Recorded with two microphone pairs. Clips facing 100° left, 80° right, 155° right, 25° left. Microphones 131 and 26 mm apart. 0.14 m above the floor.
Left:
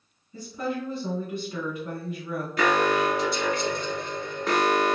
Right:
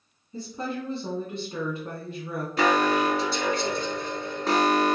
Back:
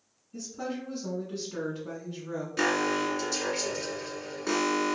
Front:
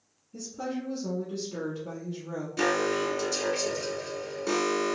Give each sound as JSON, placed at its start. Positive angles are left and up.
{"t": 0.3, "sound": "a woman speaking", "azimuth_deg": -95, "distance_m": 1.2}
{"t": 2.6, "sound": "an alarm", "azimuth_deg": -105, "distance_m": 1.6}